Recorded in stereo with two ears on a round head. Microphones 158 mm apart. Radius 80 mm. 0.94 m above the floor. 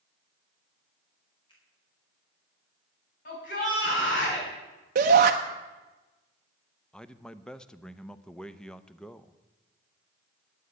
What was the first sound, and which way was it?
A finger snap, 30° left (ahead or behind).